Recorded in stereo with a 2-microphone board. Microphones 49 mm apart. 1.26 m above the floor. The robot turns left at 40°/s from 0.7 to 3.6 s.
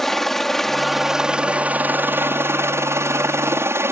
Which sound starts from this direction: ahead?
A helicopter, at 0.0 s.